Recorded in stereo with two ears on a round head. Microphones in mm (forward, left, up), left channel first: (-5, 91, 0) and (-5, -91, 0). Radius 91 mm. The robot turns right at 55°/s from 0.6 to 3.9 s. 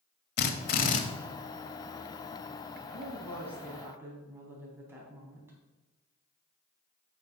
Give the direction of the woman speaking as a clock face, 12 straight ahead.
7 o'clock.